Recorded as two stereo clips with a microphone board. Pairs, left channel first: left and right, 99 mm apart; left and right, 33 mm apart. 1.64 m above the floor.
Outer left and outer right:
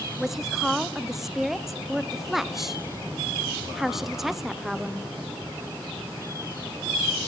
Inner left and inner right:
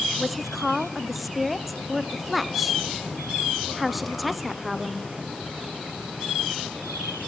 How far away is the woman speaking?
About 0.9 m.